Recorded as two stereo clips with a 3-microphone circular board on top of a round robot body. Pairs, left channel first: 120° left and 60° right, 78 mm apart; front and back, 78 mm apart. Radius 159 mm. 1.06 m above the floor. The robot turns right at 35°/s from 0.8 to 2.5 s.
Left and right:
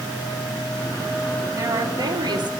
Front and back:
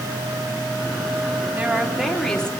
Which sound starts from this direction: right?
A woman speaking, at 1.6 s.